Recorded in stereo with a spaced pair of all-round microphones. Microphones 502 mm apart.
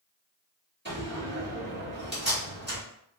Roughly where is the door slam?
Right.